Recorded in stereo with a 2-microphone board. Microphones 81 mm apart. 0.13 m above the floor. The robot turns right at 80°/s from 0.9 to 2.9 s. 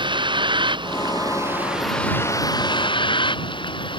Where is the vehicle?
80° right; by 4.0 s 80° left.